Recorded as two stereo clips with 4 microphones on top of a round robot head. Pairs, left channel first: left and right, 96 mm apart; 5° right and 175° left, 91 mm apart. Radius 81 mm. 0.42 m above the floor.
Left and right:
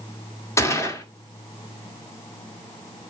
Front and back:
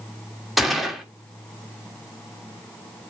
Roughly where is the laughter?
No laughter in this recording.